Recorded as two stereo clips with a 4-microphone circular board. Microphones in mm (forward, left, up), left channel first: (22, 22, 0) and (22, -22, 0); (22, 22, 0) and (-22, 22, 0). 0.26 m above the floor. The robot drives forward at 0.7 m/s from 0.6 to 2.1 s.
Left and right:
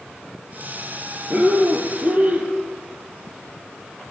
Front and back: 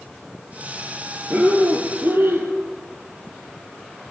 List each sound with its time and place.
1.3 s breathing: 140° right, 3.5 m; by 2.5 s 145° right, 4 m